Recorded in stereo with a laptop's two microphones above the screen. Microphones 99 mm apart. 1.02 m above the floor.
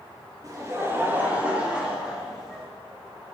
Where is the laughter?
35° right (ahead or behind), 1.6 m; by 2.6 s centre (ahead or behind), 3 m.